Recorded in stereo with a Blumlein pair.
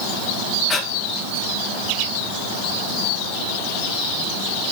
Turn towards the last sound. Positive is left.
turn(degrees=20)